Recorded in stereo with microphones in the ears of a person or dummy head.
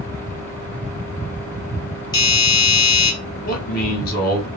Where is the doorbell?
20° left (ahead or behind), 0.9 m.